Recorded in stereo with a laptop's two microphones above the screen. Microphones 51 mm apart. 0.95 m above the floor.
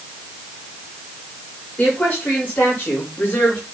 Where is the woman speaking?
30° left (ahead or behind), 4.5 m; by 3.6 s 40° left (ahead or behind), 5 m.